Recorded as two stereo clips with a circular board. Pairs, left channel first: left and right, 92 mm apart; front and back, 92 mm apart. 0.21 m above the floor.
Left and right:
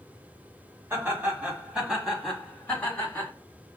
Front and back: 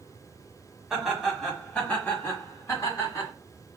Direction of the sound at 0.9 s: 105° right.